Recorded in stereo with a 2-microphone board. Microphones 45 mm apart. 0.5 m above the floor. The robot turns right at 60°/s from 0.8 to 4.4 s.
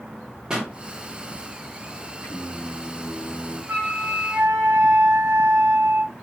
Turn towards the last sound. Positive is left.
turn(degrees=-100)